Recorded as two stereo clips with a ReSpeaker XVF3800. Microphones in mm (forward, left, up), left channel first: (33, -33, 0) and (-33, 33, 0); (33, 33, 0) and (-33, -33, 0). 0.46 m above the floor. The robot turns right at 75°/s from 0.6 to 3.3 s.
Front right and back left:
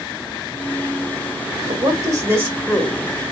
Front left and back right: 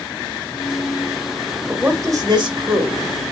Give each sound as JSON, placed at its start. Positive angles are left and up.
{"t": 1.7, "sound": "a woman speaking", "azimuth_deg": 145, "distance_m": 1.7}